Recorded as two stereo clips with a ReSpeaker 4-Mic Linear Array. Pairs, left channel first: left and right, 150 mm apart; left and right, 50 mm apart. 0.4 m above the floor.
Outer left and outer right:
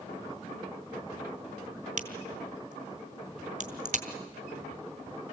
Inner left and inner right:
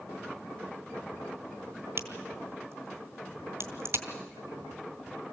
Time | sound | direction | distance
2.0 | a crack | 60° right (ahead or behind) | 2.5 m